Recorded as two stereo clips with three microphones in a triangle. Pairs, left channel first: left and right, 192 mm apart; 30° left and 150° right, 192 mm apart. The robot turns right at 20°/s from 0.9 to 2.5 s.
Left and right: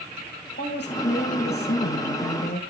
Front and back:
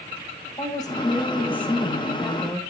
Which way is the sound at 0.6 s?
95° left.